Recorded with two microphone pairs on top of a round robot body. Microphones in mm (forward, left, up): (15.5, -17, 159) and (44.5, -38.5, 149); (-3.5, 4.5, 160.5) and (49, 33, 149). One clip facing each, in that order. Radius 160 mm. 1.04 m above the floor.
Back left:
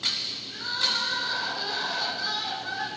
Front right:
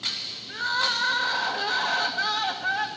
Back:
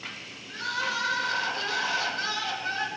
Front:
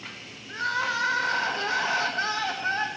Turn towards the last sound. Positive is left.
turn(degrees=-20)